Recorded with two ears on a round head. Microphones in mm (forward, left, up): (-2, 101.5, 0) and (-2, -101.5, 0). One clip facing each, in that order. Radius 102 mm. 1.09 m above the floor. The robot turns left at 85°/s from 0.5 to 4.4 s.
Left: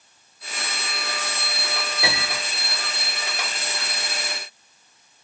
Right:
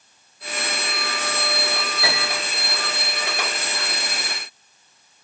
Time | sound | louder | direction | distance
2.0 | a piano | right 1 dB | 20° left | 1.8 m